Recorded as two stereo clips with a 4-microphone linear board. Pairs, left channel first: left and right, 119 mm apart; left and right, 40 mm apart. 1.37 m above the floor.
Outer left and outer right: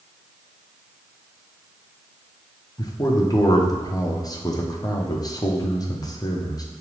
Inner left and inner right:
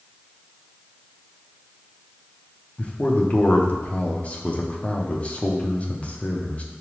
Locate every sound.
2.8 s a man speaking: 30° left (ahead or behind), 0.6 m